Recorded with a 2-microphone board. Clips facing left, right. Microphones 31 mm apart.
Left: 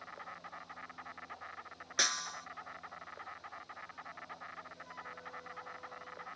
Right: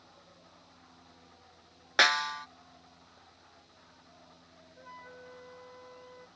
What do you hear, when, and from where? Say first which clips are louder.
0.0 s an insect: left 10 dB; 60° left (ahead or behind)
2.0 s a snare drum: right 10 dB; 45° right (ahead or behind)
4.8 s a flute: left 1 dB; 25° right (ahead or behind)